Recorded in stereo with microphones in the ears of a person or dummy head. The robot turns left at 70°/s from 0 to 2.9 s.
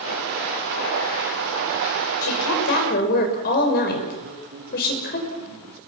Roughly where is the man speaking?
Right.